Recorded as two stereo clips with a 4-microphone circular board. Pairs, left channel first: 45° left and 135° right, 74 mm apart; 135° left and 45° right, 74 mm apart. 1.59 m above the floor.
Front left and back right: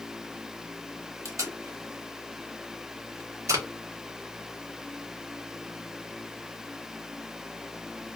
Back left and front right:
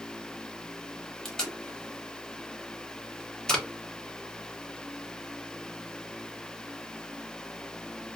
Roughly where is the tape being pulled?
Behind right.